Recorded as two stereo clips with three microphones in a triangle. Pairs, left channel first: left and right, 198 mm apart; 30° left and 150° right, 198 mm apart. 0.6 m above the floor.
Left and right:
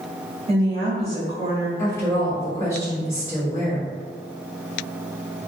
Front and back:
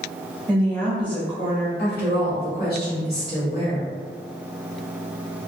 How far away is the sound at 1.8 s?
About 1.9 m.